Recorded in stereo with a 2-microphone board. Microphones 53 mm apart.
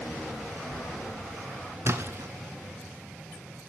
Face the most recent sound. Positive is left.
turn(degrees=-55)  # may be behind; listen again after turning